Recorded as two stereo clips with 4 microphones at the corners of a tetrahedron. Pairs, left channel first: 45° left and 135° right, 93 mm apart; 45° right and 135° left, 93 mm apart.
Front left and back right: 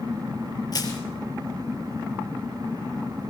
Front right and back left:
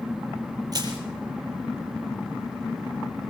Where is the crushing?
90° left, 6 m.